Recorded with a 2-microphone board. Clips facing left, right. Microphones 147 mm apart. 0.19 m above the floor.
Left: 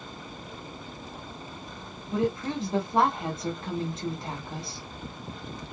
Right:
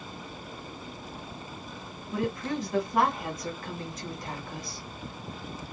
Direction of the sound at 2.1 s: 30° left (ahead or behind).